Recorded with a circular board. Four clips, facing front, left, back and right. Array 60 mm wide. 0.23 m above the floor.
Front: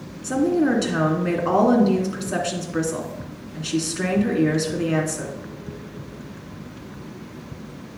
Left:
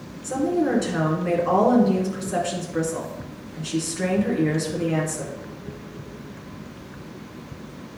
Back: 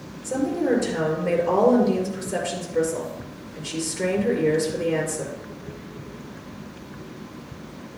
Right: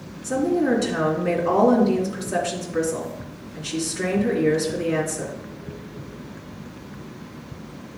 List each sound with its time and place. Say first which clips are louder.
0.2 s a woman speaking: right 1 dB, front 3 dB; 10° right, 2.5 m